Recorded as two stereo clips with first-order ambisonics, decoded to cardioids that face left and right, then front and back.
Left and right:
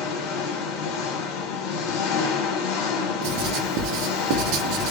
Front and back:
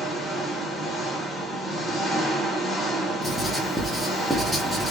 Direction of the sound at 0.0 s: 85° left.